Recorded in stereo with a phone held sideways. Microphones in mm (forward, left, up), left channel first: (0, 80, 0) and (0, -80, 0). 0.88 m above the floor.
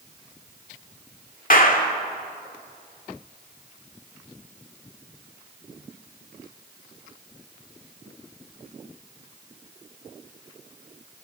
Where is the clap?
60° left (ahead or behind), 2 m.